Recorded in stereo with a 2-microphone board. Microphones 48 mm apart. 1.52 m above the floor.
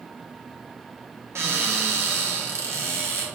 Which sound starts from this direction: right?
A cupboard door, at 1.4 s.